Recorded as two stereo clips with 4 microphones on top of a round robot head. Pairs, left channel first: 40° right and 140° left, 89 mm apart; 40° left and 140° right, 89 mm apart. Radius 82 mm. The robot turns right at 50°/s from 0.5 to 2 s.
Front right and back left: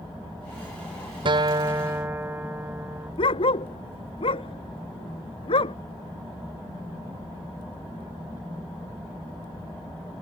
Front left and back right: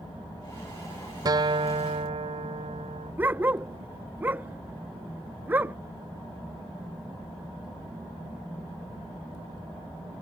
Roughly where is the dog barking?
Ahead right.